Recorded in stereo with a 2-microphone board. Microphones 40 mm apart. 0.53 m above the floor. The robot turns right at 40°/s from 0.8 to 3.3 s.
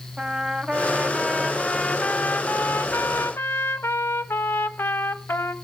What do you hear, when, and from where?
0.2 s a trumpet: 20° right, 1.0 m; by 5.5 s 80° left, 1.0 m